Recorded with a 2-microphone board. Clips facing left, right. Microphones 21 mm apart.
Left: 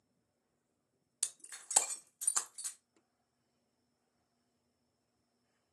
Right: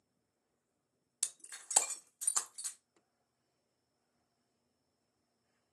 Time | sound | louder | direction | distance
1.2 | breaking glass | even | 15° right (ahead or behind) | 0.7 m